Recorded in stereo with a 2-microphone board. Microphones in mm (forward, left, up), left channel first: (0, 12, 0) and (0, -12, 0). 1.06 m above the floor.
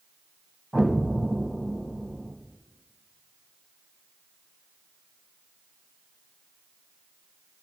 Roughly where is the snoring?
No snoring in this recording.